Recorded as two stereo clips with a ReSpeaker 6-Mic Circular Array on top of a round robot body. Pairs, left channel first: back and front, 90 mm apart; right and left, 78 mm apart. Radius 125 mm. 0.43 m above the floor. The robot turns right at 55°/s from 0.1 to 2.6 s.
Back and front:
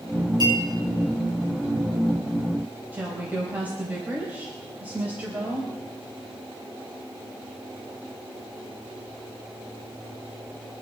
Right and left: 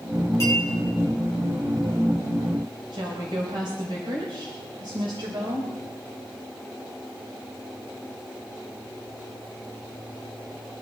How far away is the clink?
About 8 m.